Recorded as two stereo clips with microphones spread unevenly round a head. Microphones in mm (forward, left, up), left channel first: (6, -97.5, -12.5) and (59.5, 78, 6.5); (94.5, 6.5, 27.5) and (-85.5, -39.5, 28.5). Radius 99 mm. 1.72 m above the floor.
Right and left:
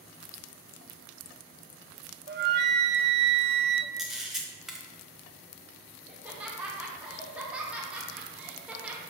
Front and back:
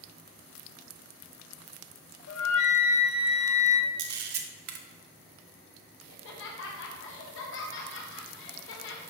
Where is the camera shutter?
160° left, 0.7 m.